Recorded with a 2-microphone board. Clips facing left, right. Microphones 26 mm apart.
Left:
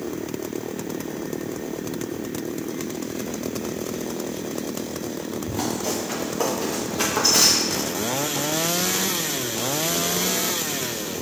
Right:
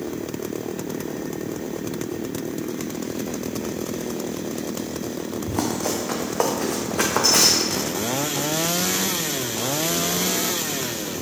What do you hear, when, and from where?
5.5 s running footsteps: 60° right (ahead or behind), 1.6 m; by 7.9 s 50° right (ahead or behind), 2 m